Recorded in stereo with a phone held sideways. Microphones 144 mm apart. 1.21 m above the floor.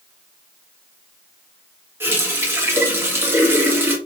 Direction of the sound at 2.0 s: 15° right (ahead or behind).